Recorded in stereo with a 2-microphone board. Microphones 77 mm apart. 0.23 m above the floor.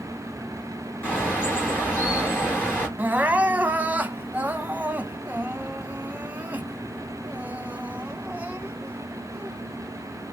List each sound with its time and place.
1.0 s a bird: 20° left (ahead or behind), 4.5 m
3.0 s crying: 20° right (ahead or behind), 0.6 m